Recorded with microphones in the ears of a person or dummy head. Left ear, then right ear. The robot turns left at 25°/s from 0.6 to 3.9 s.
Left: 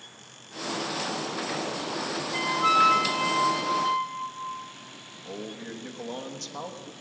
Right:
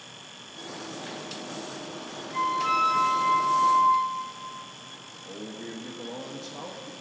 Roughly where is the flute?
Left.